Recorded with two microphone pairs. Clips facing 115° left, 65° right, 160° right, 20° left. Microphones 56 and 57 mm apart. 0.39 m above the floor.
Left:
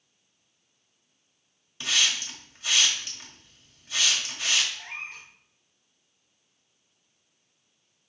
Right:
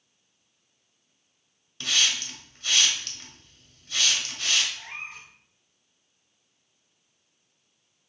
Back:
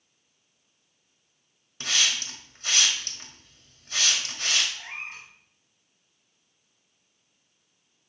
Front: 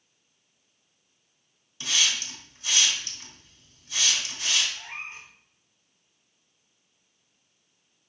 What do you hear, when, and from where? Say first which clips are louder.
1.8 s a hiss: even, even; 175° right, 1.5 m
4.7 s a cat meowing: even, back 1 dB; 160° right, 3.5 m